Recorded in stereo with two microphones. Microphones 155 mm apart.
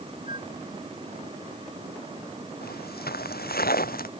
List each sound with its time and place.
0.3 s a flute: 60° left (ahead or behind)
2.6 s footsteps: 85° left; by 4.1 s 70° left (ahead or behind)